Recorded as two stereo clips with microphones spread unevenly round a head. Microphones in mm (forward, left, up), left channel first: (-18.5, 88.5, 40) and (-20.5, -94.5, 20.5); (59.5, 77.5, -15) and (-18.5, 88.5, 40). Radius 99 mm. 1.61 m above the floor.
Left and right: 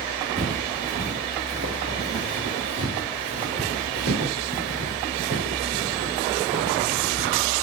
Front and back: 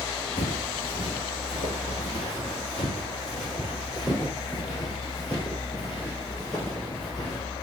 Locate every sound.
0.4 s footsteps: 40° right, 2.5 m; by 7.4 s 105° right, 4.5 m